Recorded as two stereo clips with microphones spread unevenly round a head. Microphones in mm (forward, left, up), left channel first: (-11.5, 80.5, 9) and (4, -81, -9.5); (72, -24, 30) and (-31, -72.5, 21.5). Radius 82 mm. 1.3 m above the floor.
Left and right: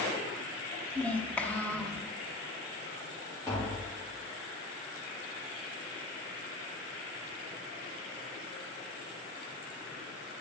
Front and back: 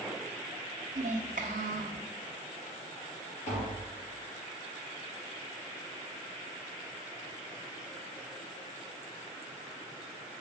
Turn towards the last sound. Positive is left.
turn(degrees=20)